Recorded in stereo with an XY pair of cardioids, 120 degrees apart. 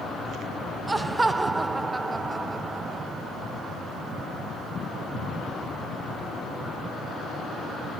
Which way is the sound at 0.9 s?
15° right.